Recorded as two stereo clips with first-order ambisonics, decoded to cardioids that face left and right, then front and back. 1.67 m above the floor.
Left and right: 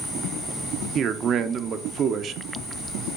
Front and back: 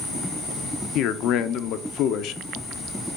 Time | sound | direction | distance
0.9 | a man speaking | 35° right | 0.5 m